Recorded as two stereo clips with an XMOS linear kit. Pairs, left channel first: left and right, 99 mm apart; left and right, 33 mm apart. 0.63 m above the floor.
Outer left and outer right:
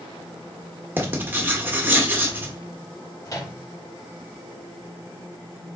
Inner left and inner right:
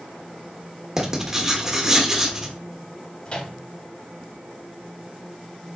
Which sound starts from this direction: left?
A microwave, at 3.2 s.